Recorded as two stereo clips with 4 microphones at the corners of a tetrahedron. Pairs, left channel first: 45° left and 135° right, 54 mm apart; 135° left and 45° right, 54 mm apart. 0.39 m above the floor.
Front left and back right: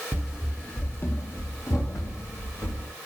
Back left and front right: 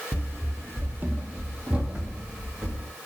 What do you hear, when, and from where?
0.1 s running footsteps: 80° right, 0.5 m; by 2.9 s 35° left, 1.7 m